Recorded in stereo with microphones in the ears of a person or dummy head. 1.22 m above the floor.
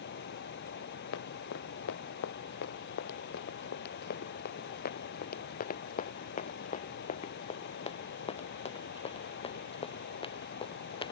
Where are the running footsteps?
75° left (ahead or behind); by 11.1 s 25° left (ahead or behind).